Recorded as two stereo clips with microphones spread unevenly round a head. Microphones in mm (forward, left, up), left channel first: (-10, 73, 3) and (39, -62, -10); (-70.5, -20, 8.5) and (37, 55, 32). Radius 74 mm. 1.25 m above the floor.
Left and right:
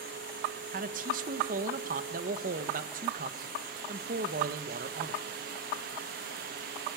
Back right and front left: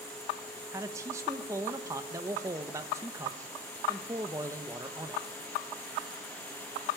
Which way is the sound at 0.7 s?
40° right.